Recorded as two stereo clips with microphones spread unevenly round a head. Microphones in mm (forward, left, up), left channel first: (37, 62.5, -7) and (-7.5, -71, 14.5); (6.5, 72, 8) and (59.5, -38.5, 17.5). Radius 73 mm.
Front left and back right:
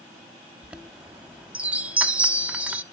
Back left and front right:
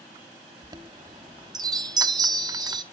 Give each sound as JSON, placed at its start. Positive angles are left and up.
{"t": 0.6, "sound": "a chime", "azimuth_deg": -45, "distance_m": 0.8}